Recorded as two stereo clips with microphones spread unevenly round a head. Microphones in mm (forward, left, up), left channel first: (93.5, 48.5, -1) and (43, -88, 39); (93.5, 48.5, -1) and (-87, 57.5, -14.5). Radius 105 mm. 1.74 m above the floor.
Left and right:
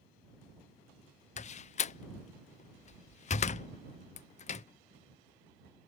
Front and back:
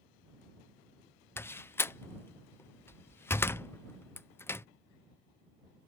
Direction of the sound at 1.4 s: 55° left.